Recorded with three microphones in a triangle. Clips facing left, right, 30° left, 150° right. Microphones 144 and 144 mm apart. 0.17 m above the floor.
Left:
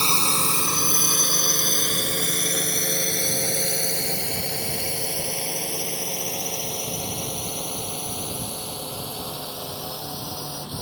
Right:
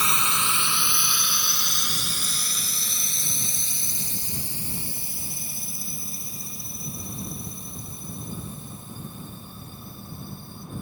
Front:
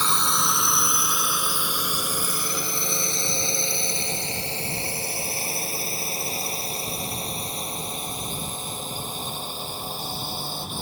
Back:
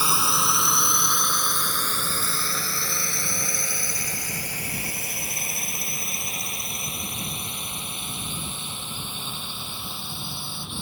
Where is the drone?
130° left; by 10.8 s 80° left.